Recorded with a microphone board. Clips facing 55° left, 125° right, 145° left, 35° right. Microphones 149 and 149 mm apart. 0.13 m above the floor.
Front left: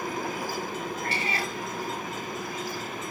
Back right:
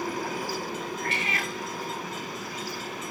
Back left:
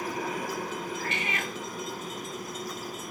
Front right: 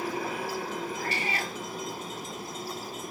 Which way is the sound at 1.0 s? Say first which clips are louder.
Front left 1 dB, front right 1 dB; 10° left.